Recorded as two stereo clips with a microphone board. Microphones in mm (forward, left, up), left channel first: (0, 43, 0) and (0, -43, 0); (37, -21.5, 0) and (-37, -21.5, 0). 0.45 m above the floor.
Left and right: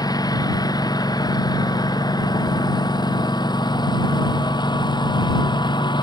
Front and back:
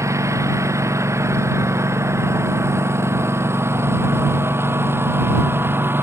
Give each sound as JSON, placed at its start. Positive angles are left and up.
{"t": 0.0, "sound": "a lawn mower", "azimuth_deg": 130}